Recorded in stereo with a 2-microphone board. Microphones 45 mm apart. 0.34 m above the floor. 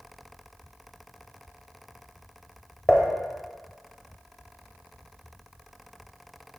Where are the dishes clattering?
15° left (ahead or behind), 1.0 m.